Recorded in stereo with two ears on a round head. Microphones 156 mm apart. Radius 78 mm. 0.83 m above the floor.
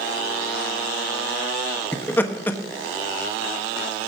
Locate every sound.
1.9 s laughter: 10° left (ahead or behind), 1.2 m